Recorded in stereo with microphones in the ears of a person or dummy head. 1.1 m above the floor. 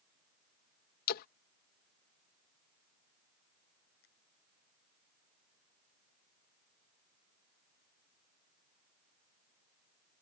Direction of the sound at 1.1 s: 55° left (ahead or behind).